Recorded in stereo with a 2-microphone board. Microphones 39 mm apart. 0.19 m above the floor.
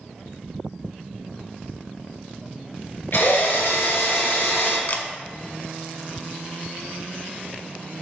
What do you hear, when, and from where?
3.1 s a drill: 70° left (ahead or behind), 2.5 m
4.9 s a camera shutter: 50° left (ahead or behind), 0.6 m